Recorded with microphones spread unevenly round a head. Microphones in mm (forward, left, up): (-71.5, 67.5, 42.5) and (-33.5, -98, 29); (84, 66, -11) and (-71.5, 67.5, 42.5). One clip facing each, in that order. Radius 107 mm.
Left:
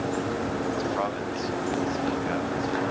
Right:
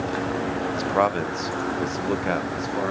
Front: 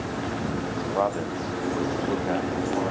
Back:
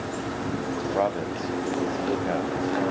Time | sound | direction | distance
0.8 | a man speaking | 105° right | 0.6 m